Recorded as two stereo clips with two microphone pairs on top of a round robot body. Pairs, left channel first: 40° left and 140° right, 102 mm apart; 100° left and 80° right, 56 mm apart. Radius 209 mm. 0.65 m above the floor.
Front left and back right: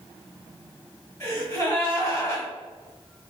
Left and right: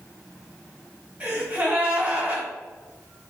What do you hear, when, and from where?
1.2 s a gasp: 20° right, 1.5 m